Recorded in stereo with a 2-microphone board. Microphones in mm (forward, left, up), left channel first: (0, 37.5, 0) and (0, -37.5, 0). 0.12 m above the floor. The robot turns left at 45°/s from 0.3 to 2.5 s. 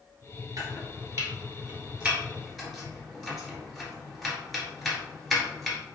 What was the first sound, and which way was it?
Chopping, 50° right (ahead or behind).